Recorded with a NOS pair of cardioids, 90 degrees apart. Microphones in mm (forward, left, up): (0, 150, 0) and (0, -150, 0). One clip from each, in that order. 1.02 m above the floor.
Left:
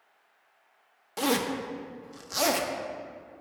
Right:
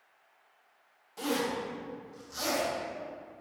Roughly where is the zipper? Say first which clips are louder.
Left 4 dB; ahead left.